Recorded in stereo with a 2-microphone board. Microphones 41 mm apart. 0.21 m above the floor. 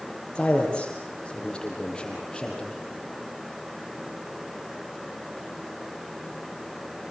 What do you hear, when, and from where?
0.3 s a man speaking: 25° left (ahead or behind), 7 m; by 2.8 s 15° left (ahead or behind), 8 m